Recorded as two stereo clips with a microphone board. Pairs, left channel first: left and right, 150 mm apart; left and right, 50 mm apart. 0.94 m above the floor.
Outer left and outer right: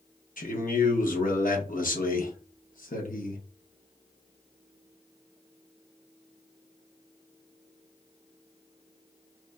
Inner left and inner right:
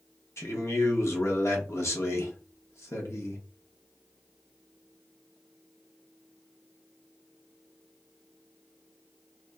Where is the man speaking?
65° left (ahead or behind), 0.8 m.